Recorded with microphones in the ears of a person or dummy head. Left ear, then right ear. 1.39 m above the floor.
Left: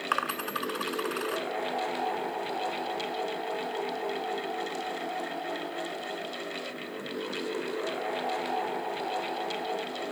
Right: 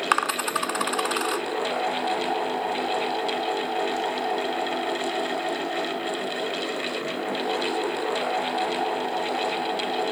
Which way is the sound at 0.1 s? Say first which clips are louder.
Right 6 dB; 35° right (ahead or behind).